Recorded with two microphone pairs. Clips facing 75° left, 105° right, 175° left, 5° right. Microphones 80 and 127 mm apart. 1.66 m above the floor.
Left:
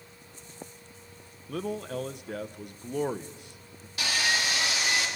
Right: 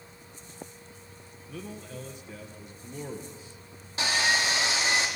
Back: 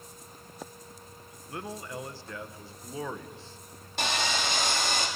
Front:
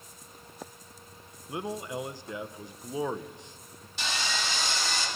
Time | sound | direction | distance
1.5 | a man speaking | 65° left | 1.2 m
4.0 | sawing | 160° right | 3.5 m